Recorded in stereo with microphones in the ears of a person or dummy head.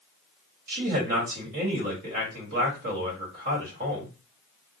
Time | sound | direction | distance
0.7 | a man speaking | 50° right (ahead or behind) | 1.5 m